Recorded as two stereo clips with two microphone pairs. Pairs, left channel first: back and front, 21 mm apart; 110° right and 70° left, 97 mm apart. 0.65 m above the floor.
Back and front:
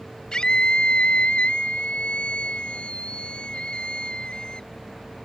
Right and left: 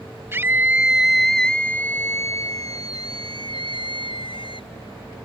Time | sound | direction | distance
0.3 | a scream | 135° left | ?